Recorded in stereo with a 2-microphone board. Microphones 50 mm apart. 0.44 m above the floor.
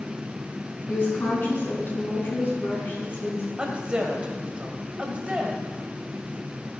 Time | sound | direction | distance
0.9 | a woman speaking | 45° left (ahead or behind) | 4 m
3.6 | a woman speaking | 20° right (ahead or behind) | 2.0 m